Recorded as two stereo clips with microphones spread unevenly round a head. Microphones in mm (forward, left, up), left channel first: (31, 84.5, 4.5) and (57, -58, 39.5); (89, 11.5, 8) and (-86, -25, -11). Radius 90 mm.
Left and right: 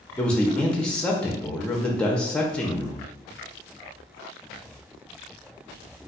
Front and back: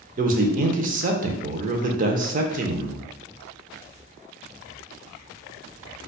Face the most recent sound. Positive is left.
turn(degrees=170)